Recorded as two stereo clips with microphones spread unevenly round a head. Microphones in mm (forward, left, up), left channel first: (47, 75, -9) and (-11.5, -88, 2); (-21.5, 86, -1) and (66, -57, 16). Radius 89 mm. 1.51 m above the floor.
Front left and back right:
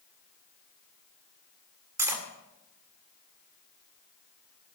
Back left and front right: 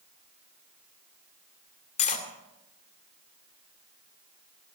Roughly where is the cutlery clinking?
Behind.